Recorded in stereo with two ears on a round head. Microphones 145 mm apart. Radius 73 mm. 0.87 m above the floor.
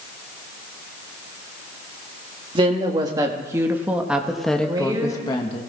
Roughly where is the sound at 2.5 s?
Right.